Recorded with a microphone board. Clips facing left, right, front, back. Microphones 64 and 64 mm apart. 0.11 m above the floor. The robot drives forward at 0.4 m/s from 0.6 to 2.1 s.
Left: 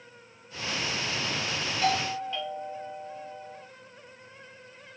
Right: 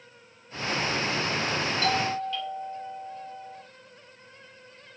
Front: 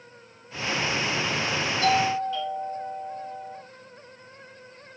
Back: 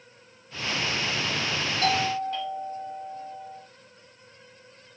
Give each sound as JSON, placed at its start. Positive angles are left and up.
{"t": 1.8, "sound": "a doorbell", "azimuth_deg": 160, "distance_m": 3.0}